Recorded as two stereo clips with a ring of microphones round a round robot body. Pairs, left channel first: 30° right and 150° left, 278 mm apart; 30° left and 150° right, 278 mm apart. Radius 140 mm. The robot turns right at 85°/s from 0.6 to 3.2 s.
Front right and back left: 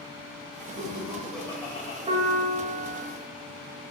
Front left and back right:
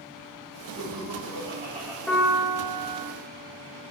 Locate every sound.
0.8 s laughter: 170° right, 2 m; by 2.0 s 70° right, 2 m
2.1 s a piano: 110° left, 1.3 m; by 3.0 s 165° right, 1.3 m